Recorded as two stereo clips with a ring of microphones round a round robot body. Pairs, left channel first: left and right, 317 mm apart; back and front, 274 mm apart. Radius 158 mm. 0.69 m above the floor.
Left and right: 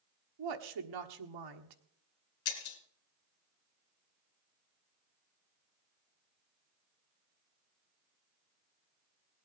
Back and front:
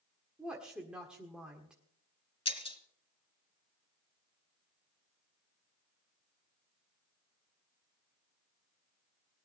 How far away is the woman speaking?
About 1.5 m.